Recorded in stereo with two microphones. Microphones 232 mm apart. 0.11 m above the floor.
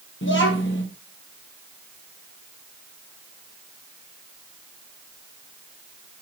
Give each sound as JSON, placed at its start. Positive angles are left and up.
{"t": 0.2, "sound": "a child speaking", "side_deg": 60, "distance_m": 2.5}